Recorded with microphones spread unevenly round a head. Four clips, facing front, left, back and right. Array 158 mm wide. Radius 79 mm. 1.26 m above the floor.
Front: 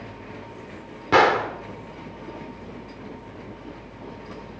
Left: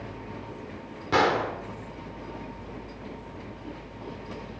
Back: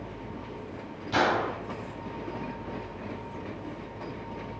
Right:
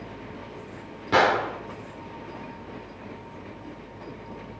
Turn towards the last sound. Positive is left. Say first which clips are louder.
# right 2 dB, front 8 dB
turn(degrees=-5)